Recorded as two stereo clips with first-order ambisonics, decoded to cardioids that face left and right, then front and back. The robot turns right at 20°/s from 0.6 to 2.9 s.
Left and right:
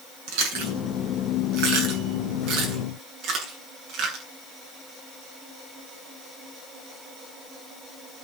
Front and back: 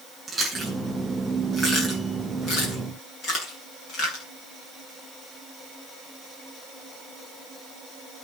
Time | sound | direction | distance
0.3 | chewing | 95° right | 9 m